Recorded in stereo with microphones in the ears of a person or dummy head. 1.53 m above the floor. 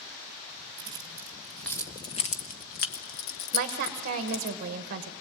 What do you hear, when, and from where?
0.8 s keys jangling: 20° right (ahead or behind), 1.1 m; by 4.5 s 75° left (ahead or behind), 1.9 m
3.5 s a woman speaking: 45° right (ahead or behind), 1.1 m